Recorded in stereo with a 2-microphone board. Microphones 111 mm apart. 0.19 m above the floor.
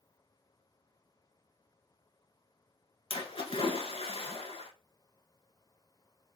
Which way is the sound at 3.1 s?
55° left (ahead or behind).